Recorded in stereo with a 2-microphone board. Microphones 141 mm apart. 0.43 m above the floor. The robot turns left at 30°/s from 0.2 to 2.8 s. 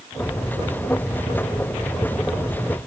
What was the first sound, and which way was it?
Only background noise.